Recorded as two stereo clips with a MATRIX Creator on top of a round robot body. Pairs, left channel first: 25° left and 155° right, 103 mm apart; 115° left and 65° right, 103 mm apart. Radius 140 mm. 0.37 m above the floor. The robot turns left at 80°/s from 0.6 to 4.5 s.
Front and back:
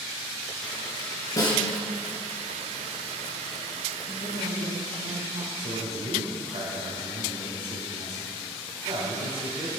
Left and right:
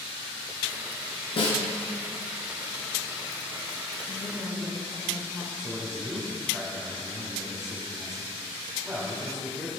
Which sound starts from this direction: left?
A snare drum, at 1.4 s.